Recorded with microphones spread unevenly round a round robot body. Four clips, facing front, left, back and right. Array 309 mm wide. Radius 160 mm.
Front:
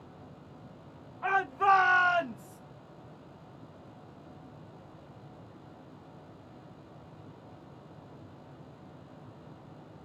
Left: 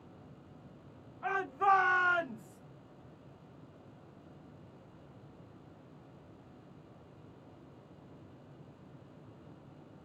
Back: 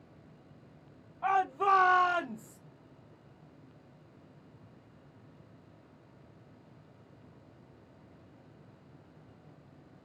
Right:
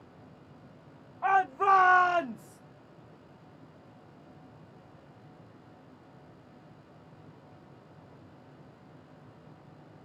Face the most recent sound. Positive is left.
turn(degrees=-115)